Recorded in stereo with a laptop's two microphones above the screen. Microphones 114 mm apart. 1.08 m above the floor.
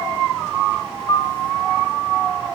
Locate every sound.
1.1 s a piano: 35° left (ahead or behind), 0.9 m